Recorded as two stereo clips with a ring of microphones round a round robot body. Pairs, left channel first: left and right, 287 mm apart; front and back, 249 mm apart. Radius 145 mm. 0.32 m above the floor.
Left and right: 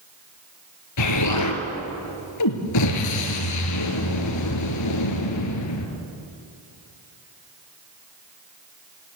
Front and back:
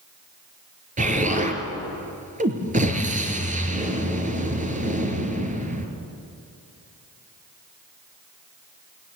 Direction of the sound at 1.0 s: 120° left.